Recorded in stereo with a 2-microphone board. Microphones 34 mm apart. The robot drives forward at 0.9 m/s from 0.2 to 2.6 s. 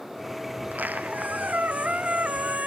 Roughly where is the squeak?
Right.